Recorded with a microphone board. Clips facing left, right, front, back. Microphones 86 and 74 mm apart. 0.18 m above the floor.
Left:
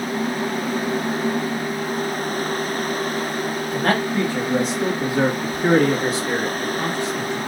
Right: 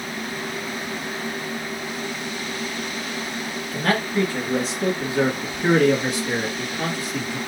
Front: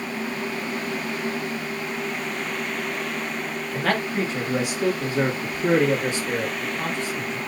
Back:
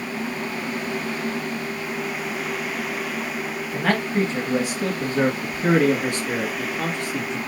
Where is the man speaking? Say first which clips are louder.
Left 1 dB, back 2 dB; 125° left, 1.3 m; by 7.4 s 170° right, 2.5 m.